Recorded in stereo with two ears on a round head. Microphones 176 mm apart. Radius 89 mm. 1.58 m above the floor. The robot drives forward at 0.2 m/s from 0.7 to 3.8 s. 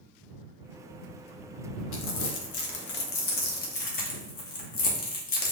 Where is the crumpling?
75° left (ahead or behind), 0.6 m; by 5.5 s 50° left (ahead or behind), 0.8 m.